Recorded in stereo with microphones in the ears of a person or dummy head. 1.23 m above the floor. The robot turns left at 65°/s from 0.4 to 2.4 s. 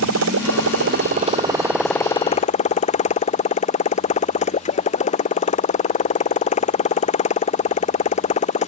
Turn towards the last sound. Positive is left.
turn(degrees=145)